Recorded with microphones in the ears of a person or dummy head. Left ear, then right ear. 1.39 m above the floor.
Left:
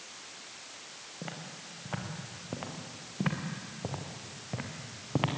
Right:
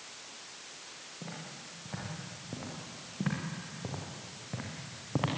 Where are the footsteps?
55° left (ahead or behind), 5.5 m; by 5.3 s 10° left (ahead or behind), 3 m.